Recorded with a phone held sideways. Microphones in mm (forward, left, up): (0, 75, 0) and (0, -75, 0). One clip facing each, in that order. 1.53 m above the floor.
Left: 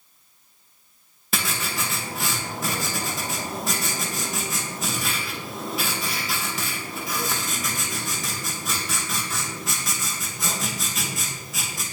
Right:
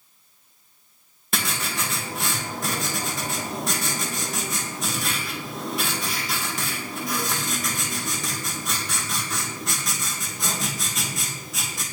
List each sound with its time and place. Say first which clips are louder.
1.3 s writing: even; centre (ahead or behind), 2.5 m